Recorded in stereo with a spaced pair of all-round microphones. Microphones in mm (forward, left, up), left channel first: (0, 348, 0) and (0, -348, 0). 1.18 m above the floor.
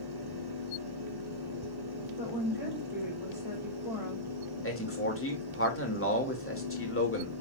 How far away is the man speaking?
About 2.5 m.